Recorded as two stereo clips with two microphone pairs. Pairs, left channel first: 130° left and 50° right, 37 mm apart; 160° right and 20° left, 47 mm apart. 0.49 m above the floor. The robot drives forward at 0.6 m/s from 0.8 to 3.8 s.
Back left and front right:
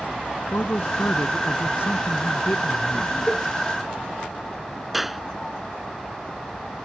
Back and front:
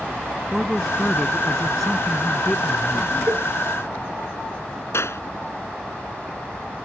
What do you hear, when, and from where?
0.5 s a man speaking: 115° left; by 3.2 s 125° left
3.3 s a cowbell: 55° left; by 3.5 s 65° left
4.9 s a clap: 135° right